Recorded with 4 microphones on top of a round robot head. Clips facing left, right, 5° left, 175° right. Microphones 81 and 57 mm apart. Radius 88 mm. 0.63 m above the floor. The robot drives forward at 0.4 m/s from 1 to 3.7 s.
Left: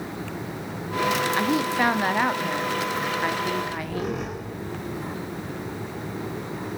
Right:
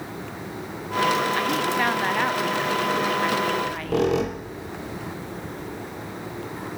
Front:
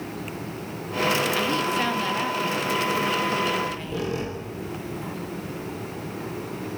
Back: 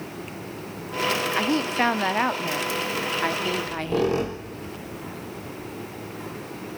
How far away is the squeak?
About 1.9 m.